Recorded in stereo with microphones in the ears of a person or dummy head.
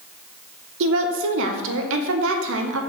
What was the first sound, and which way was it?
A woman speaking, 70° right (ahead or behind).